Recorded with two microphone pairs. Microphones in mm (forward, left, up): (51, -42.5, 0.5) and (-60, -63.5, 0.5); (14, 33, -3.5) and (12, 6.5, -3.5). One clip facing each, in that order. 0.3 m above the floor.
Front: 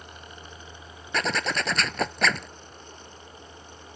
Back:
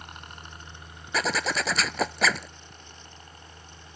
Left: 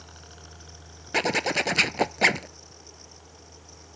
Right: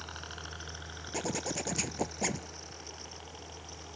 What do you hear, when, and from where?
0.0 s a helicopter: 150° right; by 4.0 s 135° right
1.1 s a zipper: 105° left